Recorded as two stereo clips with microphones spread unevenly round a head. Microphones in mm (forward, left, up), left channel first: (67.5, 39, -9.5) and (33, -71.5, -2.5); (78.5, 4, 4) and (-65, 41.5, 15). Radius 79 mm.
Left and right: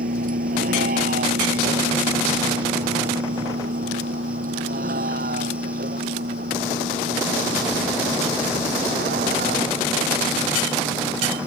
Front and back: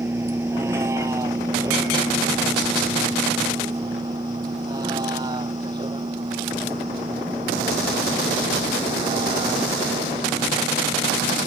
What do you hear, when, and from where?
0.0 s a vehicle: 120° right; by 11.5 s 130° right